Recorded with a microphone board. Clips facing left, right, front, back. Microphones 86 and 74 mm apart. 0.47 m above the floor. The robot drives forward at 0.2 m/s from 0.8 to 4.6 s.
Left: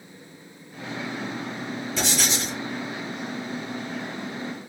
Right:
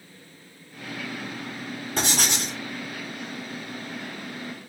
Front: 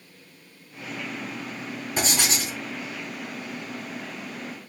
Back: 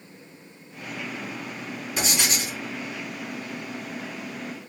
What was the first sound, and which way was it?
Writing, 55° right.